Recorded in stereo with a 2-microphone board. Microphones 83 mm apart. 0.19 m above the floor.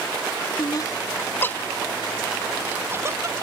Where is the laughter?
45° left (ahead or behind); by 3.4 s 40° right (ahead or behind).